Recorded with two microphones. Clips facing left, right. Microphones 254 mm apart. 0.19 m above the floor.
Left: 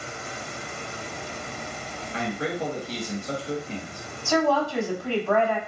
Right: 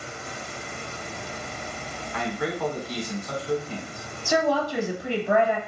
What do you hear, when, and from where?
2.1 s a man speaking: 30° left (ahead or behind), 1.1 m
4.2 s a woman speaking: 20° right (ahead or behind), 1.0 m